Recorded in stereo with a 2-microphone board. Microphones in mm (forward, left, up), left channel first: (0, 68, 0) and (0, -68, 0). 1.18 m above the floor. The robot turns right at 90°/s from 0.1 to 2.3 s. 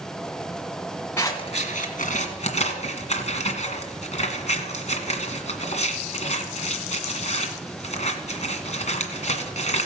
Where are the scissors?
15° left (ahead or behind), 1.8 m; by 9.9 s 60° left (ahead or behind), 1.8 m.